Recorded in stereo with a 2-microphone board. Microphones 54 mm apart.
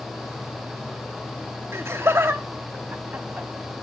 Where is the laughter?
55° right (ahead or behind), 1.2 m; by 3.5 s 35° right (ahead or behind), 1.7 m.